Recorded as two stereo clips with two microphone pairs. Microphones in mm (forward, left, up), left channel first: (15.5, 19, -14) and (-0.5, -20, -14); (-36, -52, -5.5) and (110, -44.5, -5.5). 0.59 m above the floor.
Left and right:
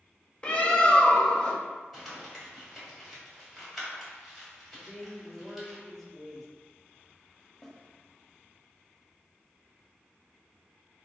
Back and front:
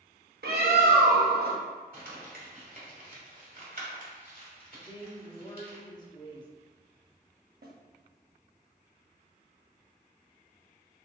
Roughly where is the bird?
Ahead.